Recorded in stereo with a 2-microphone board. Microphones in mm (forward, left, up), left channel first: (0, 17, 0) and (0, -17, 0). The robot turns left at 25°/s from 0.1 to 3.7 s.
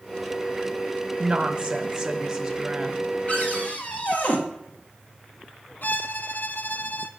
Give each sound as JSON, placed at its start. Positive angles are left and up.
{"t": 1.2, "sound": "a woman speaking", "side_deg": -25, "distance_m": 1.1}
{"t": 3.3, "sound": "a cupboard door", "side_deg": 40, "distance_m": 1.5}
{"t": 5.8, "sound": "a violin", "side_deg": 65, "distance_m": 0.5}